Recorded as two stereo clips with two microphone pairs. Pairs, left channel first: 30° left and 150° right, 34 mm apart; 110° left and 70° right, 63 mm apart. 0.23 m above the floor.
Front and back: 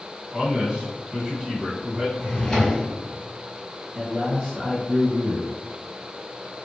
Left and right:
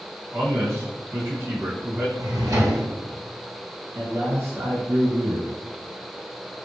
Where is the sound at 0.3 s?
85° right, 1.5 m.